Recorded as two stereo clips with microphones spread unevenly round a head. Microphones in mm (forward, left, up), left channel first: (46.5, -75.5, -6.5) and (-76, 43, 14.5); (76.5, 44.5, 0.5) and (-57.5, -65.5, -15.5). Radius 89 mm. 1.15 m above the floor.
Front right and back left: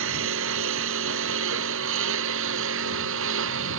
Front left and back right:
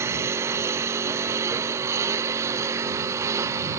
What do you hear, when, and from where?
0.0 s a lawn mower: 140° left; by 3.8 s 145° left